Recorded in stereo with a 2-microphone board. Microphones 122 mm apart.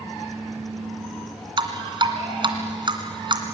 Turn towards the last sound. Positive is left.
turn(degrees=-40)  # may be behind; listen again after turning